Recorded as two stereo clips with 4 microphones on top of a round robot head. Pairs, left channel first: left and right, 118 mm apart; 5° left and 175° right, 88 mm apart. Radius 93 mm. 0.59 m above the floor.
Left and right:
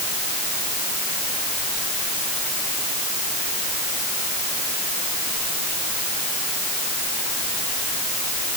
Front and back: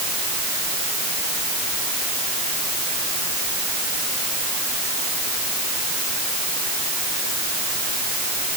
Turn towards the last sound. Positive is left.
No sound to turn to.